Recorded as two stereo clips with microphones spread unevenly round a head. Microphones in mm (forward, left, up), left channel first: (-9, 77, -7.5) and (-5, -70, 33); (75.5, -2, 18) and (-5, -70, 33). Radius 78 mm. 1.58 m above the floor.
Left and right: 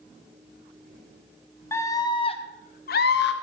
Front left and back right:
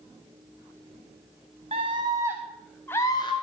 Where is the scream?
165° left, 2 m; by 3.3 s 100° left, 1.8 m.